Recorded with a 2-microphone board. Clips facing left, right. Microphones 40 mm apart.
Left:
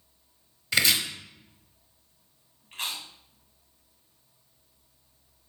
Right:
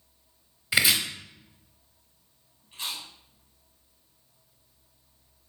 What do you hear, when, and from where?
0.7 s chopping: 15° right (ahead or behind), 0.6 m
2.7 s chewing: 65° left (ahead or behind), 0.9 m